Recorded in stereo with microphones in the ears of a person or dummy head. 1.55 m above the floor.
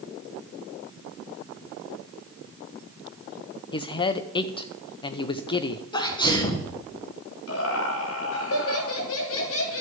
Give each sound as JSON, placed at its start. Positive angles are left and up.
{"t": 3.7, "sound": "a man speaking", "side_deg": 30, "distance_m": 0.7}
{"t": 5.9, "sound": "a sneeze", "side_deg": 30, "distance_m": 1.5}
{"t": 7.5, "sound": "laughter", "side_deg": 80, "distance_m": 2.5}